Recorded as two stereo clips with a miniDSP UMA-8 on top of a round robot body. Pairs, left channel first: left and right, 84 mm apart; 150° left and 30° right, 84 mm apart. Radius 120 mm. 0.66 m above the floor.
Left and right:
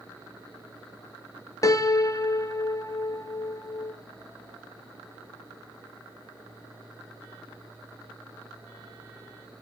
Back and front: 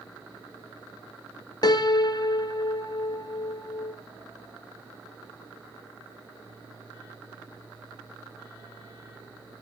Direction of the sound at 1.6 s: 130° left.